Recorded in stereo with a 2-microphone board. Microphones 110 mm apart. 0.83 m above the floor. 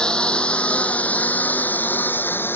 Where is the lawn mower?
10° left (ahead or behind); by 2.6 s 20° left (ahead or behind).